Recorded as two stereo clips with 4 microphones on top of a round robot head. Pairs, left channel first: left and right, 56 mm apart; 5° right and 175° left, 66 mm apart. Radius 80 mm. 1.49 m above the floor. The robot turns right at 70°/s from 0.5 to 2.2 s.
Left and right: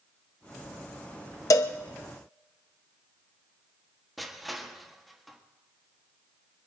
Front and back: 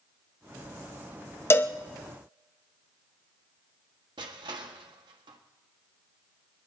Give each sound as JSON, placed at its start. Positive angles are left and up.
{"t": 1.5, "sound": "a cowbell", "azimuth_deg": 50, "distance_m": 0.7}
{"t": 4.2, "sound": "crushing", "azimuth_deg": 180, "distance_m": 1.5}